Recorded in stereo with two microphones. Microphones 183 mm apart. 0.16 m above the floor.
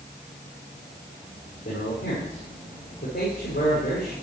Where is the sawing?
No sawing in this recording.